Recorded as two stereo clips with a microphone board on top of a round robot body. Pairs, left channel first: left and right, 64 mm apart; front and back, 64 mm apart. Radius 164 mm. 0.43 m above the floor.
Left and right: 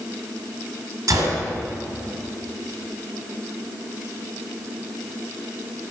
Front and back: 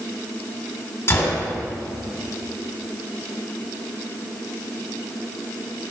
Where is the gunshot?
50° right, 1.4 m.